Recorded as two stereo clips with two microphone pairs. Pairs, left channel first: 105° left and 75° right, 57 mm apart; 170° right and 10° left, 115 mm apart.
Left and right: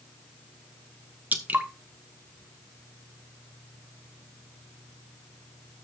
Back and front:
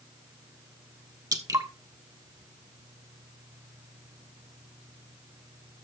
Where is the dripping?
30° right, 1.2 m.